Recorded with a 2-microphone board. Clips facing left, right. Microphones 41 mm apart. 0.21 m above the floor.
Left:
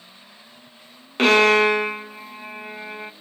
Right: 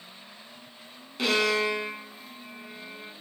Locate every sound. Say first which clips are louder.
1.2 s a violin: left 10 dB; 55° left (ahead or behind), 0.9 m